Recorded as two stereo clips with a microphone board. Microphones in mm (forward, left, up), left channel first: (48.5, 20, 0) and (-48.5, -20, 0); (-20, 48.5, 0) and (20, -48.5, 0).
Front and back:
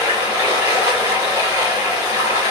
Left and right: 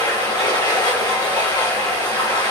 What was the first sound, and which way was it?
Running water, 150° left.